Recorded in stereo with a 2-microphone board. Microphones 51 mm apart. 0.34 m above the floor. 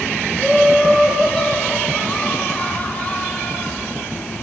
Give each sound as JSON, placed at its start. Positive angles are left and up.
{"t": 0.4, "sound": "laughter", "side_deg": 5, "distance_m": 1.9}